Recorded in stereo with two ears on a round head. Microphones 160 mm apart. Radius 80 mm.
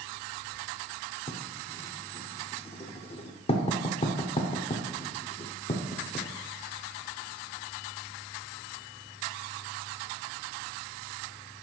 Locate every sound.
1.3 s writing: 35° left (ahead or behind), 0.7 m